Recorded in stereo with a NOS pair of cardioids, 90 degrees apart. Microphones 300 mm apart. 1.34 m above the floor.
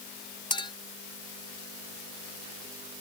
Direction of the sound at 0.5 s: 15° left.